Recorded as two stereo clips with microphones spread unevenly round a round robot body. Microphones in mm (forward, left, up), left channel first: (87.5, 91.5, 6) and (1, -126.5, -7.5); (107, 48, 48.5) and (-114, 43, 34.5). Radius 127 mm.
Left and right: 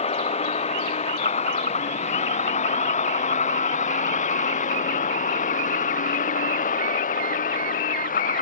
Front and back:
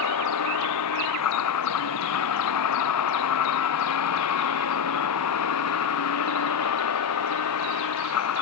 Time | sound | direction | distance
0.0 | a vehicle | 5° left | ?